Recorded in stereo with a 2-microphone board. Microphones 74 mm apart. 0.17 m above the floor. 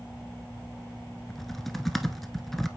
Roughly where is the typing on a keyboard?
Centre.